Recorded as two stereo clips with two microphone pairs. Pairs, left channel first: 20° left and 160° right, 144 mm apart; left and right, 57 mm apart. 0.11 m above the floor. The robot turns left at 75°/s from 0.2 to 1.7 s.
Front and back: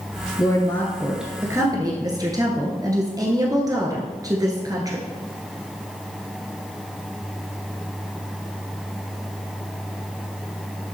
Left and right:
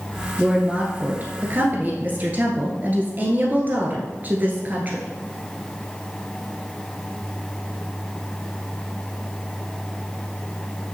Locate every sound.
0.4 s a woman speaking: 15° right, 1.3 m; by 5.1 s 115° right, 1.3 m